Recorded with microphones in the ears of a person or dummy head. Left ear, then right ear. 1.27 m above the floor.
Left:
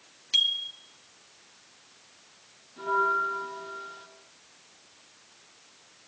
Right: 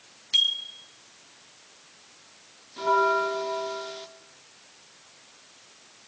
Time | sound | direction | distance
0.3 | a bicycle bell | 5° left (ahead or behind) | 2 m
2.8 | a bell | 35° right (ahead or behind) | 2.5 m